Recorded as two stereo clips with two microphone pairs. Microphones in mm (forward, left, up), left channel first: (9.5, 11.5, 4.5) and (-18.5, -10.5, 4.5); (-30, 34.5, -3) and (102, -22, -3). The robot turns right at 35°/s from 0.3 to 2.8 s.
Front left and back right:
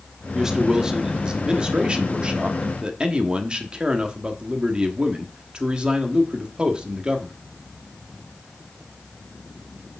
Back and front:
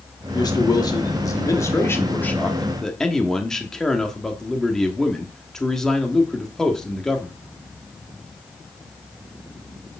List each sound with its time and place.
0.3 s a man speaking: 155° left, 1.2 m; by 7.3 s 120° right, 1.2 m